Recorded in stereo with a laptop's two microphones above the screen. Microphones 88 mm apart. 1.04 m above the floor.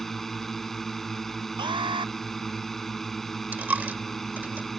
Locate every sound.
0.0 s a drone: 5° left (ahead or behind)
1.6 s an alarm: 65° right (ahead or behind)
3.5 s a dropped coin: 20° right (ahead or behind)